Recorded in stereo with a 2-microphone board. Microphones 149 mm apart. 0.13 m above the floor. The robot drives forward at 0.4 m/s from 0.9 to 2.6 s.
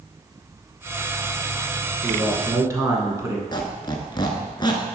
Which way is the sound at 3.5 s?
30° left (ahead or behind).